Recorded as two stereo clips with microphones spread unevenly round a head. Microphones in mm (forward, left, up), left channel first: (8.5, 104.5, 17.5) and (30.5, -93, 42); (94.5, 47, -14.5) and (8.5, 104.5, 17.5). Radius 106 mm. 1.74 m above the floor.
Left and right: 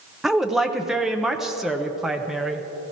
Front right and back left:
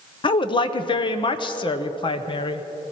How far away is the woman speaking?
About 0.7 m.